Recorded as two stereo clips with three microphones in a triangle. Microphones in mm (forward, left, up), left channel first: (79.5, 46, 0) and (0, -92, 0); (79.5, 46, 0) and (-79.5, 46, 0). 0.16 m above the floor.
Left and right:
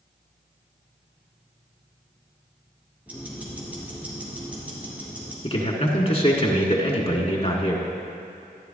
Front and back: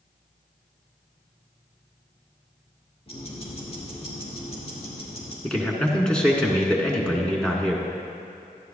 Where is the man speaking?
80° left, 1.6 m.